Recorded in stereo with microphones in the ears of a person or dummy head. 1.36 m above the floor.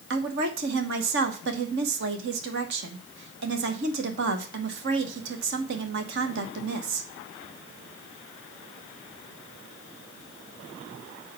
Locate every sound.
0.1 s a woman speaking: 60° right (ahead or behind), 1.2 m